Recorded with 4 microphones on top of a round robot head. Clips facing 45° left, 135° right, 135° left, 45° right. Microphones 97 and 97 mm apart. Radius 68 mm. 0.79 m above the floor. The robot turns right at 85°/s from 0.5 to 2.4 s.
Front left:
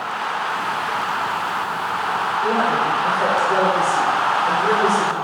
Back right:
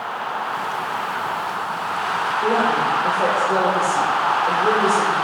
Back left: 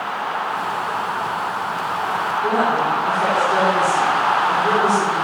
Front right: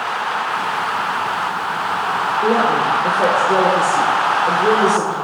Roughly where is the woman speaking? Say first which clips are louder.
Back right 1 dB, front right 3 dB; ahead right.